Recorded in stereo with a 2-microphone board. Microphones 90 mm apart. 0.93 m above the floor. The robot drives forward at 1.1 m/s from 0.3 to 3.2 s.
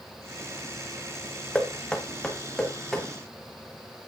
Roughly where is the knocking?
Centre.